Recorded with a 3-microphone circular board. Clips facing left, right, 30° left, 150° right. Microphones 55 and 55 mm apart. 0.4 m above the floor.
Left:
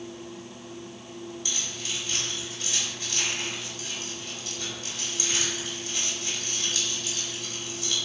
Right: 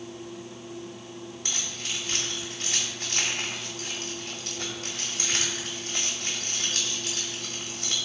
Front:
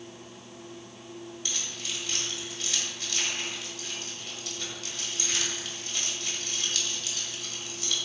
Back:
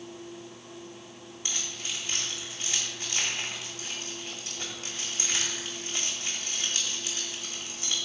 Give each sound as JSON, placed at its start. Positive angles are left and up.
{"t": 1.4, "sound": "keys jangling", "azimuth_deg": -90, "distance_m": 1.5}